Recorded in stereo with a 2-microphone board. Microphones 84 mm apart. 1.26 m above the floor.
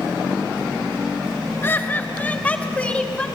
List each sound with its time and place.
1.6 s laughter: 25° left (ahead or behind), 1.3 m; by 3.3 s 15° left (ahead or behind), 2.5 m